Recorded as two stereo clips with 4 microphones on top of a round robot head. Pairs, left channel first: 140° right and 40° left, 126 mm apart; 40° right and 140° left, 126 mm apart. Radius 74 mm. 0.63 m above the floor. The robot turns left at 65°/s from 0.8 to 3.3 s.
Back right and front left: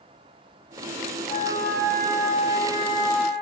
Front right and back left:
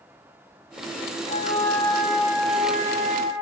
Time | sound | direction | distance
1.3 | a flute | 90° right | 0.6 m